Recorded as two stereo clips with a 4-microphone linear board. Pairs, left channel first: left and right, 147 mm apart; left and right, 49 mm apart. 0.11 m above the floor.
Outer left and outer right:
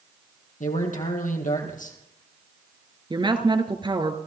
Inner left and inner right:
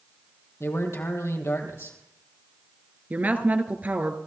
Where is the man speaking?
65° left (ahead or behind), 3 m.